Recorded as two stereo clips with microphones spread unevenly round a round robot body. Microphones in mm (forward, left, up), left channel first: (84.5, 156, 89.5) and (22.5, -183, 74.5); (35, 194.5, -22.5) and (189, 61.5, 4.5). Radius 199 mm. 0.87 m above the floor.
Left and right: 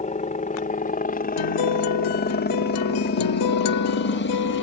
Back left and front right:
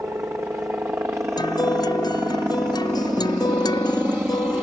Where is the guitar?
70° left.